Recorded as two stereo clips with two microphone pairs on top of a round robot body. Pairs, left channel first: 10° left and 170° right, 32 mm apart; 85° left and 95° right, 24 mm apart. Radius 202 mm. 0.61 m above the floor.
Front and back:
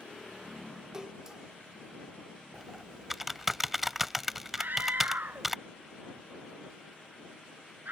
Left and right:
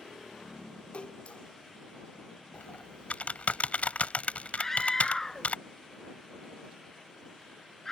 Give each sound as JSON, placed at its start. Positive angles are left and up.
{"t": 0.9, "sound": "a splash", "azimuth_deg": 115}
{"t": 2.5, "sound": "typing on a keyboard", "azimuth_deg": 105}
{"t": 4.6, "sound": "a scream", "azimuth_deg": 160}